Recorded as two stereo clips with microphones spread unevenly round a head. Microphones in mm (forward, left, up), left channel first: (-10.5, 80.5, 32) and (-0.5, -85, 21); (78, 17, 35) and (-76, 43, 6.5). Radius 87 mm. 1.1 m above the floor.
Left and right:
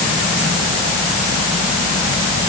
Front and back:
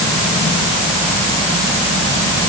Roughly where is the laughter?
No laughter in this recording.